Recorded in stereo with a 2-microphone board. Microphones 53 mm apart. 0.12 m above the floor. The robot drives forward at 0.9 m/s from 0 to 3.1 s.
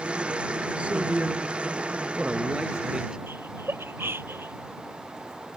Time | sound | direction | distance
0.8 | a man speaking | 25° right (ahead or behind) | ?
3.3 | laughter | 50° right (ahead or behind) | ?